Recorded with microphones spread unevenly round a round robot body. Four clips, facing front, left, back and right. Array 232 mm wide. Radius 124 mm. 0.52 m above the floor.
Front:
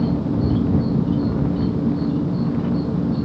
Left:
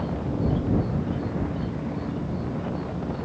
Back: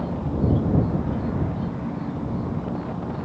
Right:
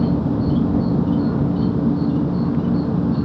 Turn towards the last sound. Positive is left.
turn(degrees=-75)